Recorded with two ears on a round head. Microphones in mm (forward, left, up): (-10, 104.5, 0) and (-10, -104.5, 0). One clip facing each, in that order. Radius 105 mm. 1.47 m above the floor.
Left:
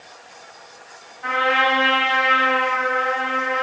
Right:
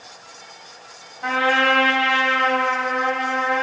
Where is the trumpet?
60° right (ahead or behind), 4.5 m.